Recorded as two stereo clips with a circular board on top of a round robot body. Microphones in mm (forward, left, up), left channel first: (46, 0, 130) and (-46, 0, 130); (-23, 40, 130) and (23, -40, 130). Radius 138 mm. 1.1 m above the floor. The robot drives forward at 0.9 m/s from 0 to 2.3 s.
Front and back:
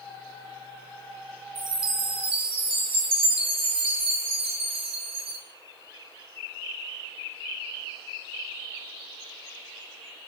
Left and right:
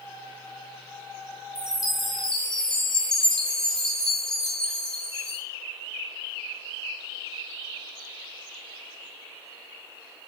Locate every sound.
1.6 s a chime: 135° right, 0.8 m; by 5.4 s 155° right, 1.3 m